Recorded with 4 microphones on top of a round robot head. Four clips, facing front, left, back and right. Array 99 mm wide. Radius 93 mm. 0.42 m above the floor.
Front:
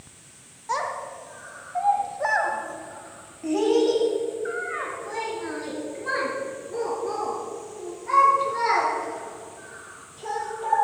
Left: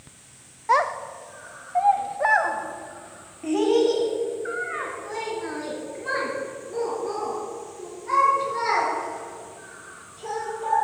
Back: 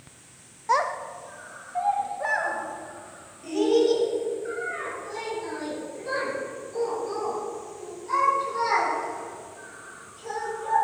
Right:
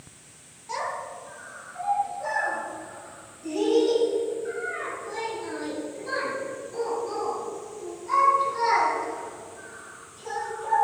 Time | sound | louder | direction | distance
0.7 | a child speaking | left 10 dB, back 4 dB | 110° left | 1.2 m